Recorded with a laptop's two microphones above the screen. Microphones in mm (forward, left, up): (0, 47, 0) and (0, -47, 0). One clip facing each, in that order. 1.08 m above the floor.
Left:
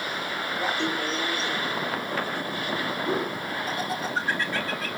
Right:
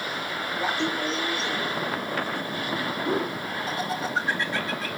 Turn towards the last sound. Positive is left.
turn(degrees=-25)  # may be behind; listen again after turning